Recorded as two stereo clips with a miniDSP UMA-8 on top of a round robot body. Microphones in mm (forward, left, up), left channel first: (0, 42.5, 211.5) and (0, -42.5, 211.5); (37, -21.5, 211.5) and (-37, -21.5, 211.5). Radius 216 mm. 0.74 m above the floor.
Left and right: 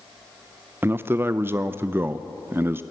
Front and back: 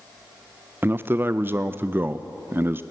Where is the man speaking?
140° right, 0.8 m.